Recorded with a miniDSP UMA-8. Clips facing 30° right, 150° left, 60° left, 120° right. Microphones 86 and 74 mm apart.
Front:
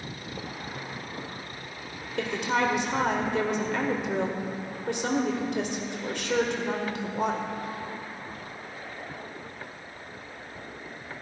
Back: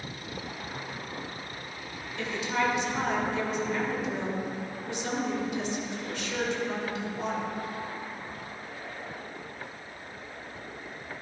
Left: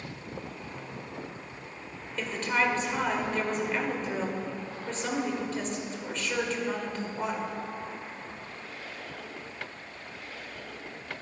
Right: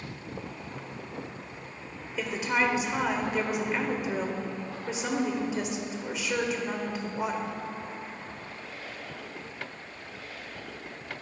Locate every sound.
2.1 s a woman speaking: 40° right, 1.5 m